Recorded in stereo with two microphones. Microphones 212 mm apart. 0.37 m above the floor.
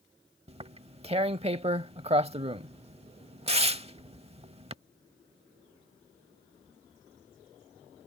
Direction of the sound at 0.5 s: 30° right (ahead or behind).